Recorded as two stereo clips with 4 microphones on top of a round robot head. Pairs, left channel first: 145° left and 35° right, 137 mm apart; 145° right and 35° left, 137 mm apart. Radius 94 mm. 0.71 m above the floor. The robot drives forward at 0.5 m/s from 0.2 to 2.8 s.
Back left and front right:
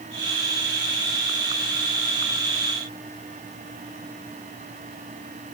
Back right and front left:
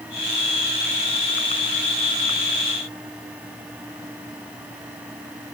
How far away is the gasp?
I don't hear a gasp.